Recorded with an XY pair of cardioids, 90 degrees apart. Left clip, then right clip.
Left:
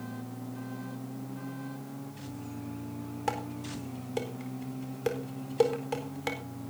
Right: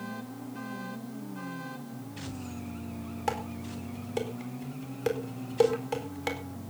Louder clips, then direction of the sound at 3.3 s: Right 1 dB; straight ahead.